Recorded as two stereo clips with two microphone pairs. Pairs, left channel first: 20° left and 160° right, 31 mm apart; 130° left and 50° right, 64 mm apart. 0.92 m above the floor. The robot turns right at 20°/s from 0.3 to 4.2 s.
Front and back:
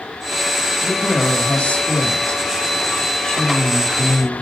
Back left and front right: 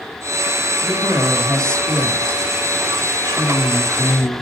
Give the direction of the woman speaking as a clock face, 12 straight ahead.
11 o'clock.